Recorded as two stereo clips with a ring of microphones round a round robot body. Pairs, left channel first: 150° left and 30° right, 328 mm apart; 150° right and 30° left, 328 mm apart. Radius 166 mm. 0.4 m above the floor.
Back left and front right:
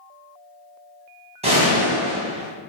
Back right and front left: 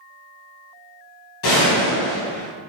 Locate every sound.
1.4 s a gunshot: 100° right, 2.5 m